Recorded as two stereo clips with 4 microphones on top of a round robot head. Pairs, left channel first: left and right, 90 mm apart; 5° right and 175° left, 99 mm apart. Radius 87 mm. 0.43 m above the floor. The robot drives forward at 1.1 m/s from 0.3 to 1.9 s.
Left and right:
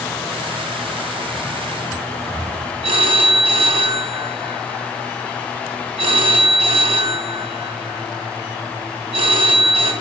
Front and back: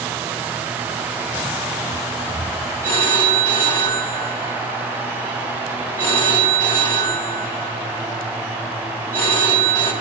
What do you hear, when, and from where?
2.8 s a phone ringing: 75° right, 3 m